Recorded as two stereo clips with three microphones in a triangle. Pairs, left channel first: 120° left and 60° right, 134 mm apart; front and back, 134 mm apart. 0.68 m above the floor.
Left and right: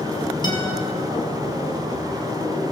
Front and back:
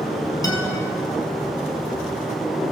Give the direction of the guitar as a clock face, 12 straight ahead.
10 o'clock.